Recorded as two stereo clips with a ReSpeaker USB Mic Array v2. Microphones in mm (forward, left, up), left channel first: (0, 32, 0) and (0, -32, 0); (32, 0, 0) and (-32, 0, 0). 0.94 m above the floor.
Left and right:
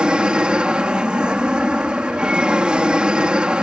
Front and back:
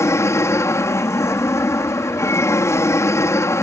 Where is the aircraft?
20° right.